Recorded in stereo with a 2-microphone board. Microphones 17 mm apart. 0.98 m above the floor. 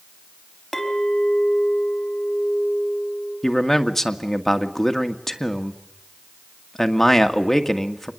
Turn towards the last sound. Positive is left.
turn(degrees=15)  # may be behind; listen again after turning